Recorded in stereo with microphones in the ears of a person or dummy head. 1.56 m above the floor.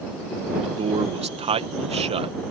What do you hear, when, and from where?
0.6 s a man speaking: 30° right (ahead or behind)